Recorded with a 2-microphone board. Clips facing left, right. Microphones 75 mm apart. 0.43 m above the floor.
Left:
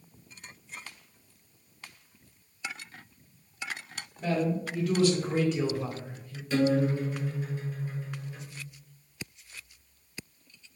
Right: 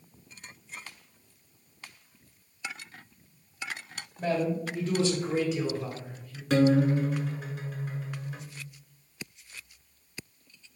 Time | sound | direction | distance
4.2 | a man speaking | 45° right (ahead or behind) | 2 m
6.5 | a guitar | 70° right (ahead or behind) | 1.1 m